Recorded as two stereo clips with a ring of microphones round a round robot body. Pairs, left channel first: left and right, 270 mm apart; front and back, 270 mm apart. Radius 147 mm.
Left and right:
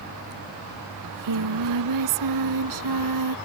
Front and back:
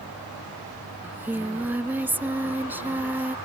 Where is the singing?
95° right.